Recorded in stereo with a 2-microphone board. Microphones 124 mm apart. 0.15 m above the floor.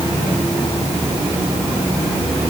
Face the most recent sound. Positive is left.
No sound to turn to.